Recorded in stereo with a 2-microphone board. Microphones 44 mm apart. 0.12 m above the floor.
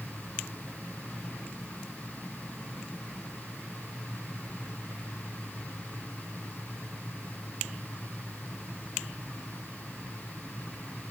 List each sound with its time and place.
Only background noise.